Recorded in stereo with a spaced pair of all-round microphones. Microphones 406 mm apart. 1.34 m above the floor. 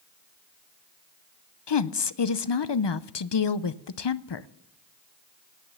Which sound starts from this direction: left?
A woman speaking, at 1.7 s.